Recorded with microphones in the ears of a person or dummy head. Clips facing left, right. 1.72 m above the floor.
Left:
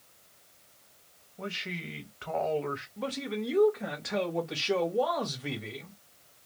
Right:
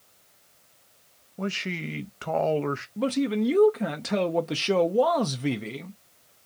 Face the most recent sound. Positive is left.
turn(degrees=-45)  # may be behind; listen again after turning